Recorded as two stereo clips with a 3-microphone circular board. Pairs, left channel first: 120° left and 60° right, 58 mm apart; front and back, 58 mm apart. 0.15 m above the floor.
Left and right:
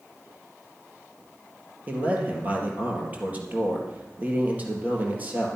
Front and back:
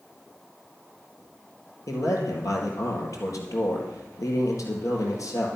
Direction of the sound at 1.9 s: Straight ahead.